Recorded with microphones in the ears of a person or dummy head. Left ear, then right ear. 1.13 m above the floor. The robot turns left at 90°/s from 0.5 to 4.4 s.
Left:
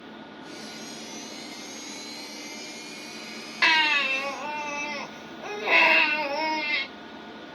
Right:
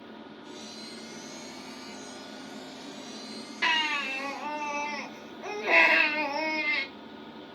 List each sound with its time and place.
0.0 s an engine running: 70° left, 3 m; by 7.6 s 80° left, 3 m
3.6 s a baby crying: 85° left, 1.5 m; by 6.8 s 15° left, 1.5 m